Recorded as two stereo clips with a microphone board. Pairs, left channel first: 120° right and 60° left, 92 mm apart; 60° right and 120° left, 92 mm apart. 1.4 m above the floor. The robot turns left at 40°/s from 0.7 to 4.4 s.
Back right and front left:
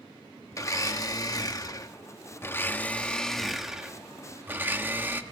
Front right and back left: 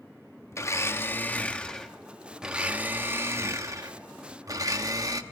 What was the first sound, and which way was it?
A blender, 95° right.